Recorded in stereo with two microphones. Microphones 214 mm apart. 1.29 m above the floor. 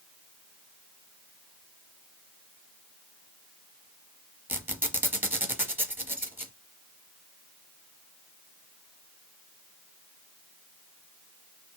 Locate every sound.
4.5 s a squeak: 10° right (ahead or behind), 1.2 m